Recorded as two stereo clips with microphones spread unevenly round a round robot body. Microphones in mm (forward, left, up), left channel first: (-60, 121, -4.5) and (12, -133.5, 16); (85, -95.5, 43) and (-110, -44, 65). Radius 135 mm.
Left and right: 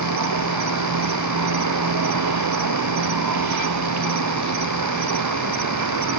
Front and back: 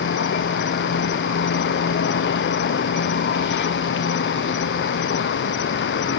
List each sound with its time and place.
0.0 s an insect: 40° right